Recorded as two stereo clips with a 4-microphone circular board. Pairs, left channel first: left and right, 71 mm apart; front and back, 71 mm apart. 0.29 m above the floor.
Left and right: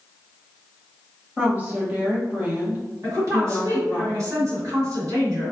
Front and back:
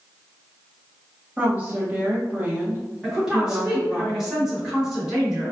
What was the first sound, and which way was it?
A woman speaking, 140° right.